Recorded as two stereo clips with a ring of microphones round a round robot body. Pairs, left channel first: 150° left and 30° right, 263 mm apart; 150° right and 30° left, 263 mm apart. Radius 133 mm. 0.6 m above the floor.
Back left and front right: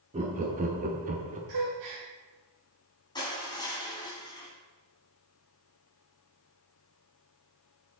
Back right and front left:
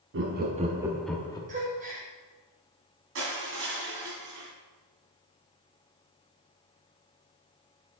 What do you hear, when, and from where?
0.1 s laughter: 25° left, 0.8 m; by 1.4 s 80° right, 0.8 m
1.5 s a gasp: 30° right, 2.5 m
3.1 s crushing: 75° left, 2.5 m